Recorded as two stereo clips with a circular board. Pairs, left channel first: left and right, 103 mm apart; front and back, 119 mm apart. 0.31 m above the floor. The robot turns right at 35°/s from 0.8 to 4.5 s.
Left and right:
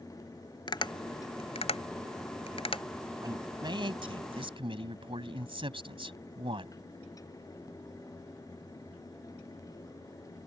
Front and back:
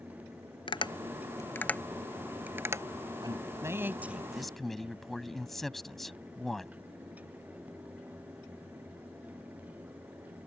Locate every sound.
0.7 s tapping: 45° left; by 2.8 s 115° left
3.2 s a man speaking: 135° right; by 6.8 s 90° right